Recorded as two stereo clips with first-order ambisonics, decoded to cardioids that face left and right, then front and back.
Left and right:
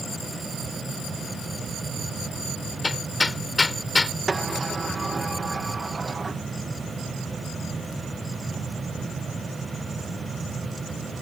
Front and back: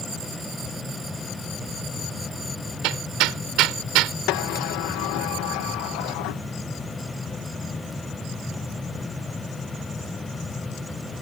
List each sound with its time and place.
2.8 s hammering: 170° left
4.3 s a sliding door: 15° right